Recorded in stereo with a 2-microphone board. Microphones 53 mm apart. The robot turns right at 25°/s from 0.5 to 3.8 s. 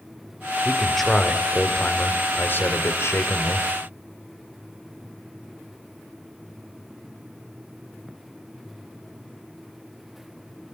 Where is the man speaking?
5° right, 2.5 m; by 3.7 s 75° left, 2.5 m.